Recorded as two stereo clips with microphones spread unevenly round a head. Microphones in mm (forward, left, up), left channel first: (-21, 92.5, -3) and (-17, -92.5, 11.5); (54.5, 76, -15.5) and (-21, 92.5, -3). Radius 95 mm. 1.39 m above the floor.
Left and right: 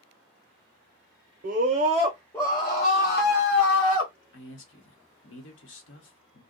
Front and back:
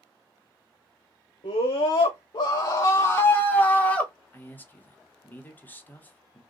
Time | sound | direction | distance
1.4 | a scream | 40° right | 0.7 m
4.3 | a man speaking | 60° left | 1.0 m